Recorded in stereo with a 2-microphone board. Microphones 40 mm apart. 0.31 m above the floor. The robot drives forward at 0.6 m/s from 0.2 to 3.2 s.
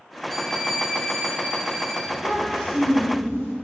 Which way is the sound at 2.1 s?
60° left (ahead or behind).